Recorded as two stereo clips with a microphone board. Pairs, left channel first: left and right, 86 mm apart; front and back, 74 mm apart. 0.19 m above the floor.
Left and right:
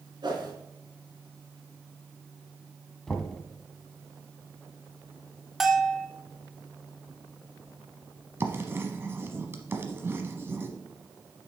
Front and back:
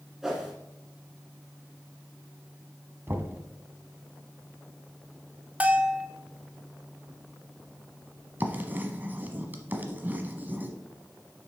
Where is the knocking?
165° left, 0.9 m.